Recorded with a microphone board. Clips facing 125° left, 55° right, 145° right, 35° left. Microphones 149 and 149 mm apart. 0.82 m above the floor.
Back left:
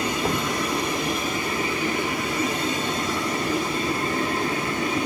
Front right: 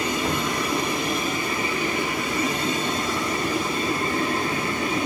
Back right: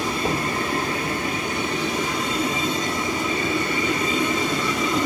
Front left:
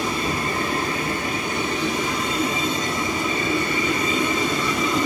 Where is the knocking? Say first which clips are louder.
Even, back right 1 dB; 175° left, 2.5 m.